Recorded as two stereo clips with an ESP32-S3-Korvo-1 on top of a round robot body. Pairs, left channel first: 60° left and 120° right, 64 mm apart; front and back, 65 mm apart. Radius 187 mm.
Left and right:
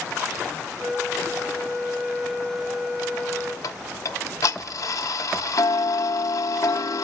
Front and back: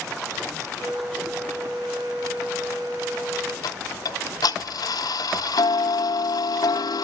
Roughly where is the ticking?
Ahead left.